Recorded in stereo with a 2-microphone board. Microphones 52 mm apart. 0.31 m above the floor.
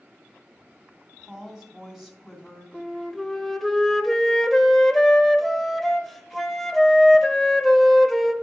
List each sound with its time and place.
1.2 s a woman speaking: 5° right (ahead or behind), 2.0 m
2.7 s a flute: 5° left (ahead or behind), 0.6 m